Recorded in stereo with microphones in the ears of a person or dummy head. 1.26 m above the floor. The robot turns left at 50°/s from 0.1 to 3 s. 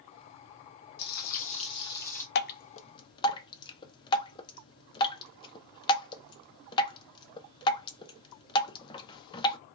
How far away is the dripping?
About 0.5 m.